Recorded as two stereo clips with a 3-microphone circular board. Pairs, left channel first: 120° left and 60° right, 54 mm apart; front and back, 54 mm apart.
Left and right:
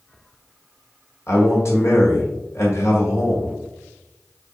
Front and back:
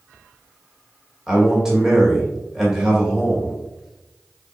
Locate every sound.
1.3 s a man speaking: 100° left, 1.7 m